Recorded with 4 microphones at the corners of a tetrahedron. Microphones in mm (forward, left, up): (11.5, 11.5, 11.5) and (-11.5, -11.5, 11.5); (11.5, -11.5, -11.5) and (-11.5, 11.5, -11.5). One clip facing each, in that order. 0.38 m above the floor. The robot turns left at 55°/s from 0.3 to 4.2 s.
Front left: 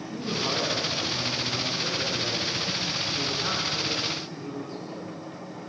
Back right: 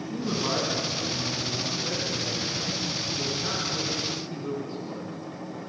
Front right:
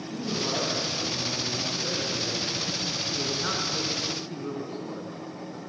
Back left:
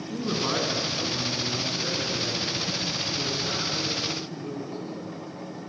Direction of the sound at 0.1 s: 150° left.